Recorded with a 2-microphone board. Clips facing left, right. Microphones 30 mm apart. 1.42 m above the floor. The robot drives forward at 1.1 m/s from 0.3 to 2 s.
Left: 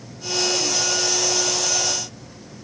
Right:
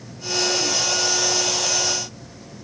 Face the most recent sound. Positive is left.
No sound to turn to.